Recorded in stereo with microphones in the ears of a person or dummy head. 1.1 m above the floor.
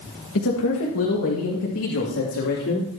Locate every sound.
0.3 s a man speaking: 60° left (ahead or behind), 1.6 m; by 2.9 s 75° left (ahead or behind), 3.5 m